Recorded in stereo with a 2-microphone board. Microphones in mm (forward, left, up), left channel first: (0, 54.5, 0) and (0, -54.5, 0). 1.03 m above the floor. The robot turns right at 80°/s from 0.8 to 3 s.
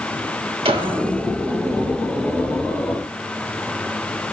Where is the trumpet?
I don't hear a trumpet.